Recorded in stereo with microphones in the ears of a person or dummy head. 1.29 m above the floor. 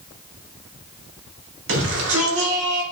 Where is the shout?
85° right, 3.5 m.